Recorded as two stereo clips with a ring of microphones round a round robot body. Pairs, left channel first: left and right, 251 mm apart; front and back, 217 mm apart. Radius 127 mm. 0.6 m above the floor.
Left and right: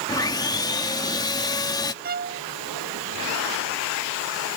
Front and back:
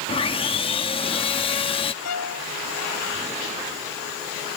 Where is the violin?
35° right.